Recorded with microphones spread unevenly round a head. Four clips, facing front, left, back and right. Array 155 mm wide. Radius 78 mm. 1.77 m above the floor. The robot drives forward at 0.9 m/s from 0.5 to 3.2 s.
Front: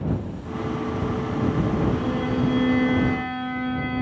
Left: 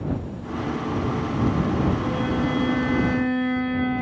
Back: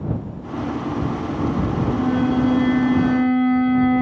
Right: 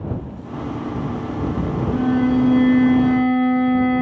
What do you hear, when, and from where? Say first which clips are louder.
1.9 s a violin: right 7 dB, back 5 dB; 110° right, 5.5 m; by 4.0 s 120° right, 6 m